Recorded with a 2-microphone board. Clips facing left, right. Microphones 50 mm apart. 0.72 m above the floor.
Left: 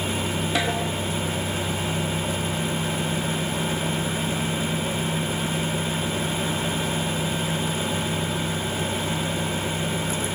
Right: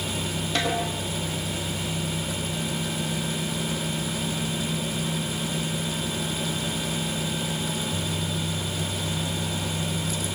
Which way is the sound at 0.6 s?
10° left (ahead or behind).